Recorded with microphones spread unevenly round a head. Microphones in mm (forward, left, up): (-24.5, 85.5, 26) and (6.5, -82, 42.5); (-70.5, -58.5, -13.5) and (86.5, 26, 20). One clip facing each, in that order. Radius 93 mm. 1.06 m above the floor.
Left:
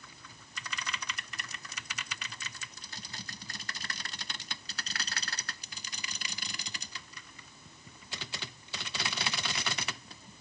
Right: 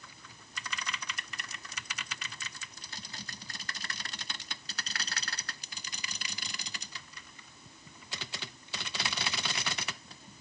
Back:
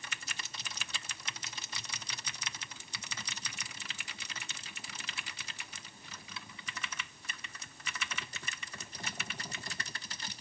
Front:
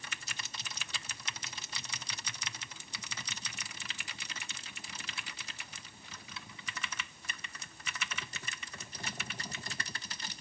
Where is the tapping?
I don't hear tapping.